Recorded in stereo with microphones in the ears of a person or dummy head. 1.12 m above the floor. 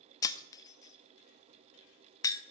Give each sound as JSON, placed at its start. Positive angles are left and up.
{"t": 0.2, "sound": "breaking glass", "side_deg": 25, "distance_m": 0.6}